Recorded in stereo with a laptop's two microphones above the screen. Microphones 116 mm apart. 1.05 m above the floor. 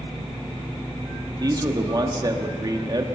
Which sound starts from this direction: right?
A man speaking, at 1.4 s.